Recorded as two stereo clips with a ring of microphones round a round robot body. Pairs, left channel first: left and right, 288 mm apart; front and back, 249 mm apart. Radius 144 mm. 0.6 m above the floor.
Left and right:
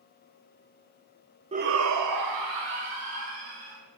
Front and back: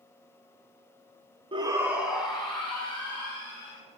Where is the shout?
135° right, 0.6 m; by 3.8 s 85° right, 3.5 m.